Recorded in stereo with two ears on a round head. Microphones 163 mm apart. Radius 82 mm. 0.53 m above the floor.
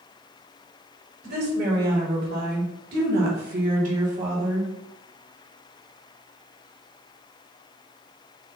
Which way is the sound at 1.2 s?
55° right (ahead or behind).